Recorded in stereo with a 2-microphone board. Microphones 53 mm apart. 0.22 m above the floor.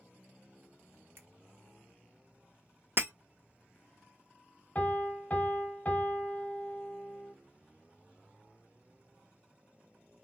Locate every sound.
1.2 s a finger snap: 50° right (ahead or behind), 1.8 m
3.0 s breaking glass: 50° right (ahead or behind), 0.7 m
4.8 s a piano: 30° left (ahead or behind), 1.1 m